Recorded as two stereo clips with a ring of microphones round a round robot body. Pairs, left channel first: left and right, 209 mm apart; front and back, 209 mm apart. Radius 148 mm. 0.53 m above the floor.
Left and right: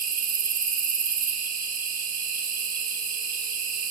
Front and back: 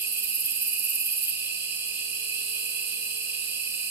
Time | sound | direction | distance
0.0 | an insect | 105° right | 1.1 m